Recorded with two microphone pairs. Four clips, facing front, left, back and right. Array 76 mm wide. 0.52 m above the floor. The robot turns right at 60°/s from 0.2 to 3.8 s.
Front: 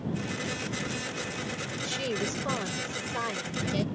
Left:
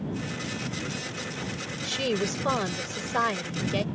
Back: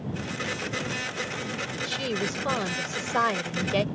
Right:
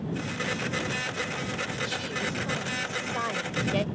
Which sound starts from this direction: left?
A woman speaking, at 1.8 s.